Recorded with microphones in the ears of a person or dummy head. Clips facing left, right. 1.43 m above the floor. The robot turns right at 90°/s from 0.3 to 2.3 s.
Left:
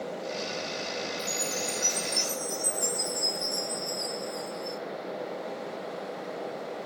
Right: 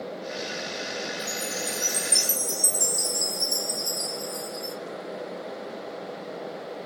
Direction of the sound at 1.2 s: 160° left.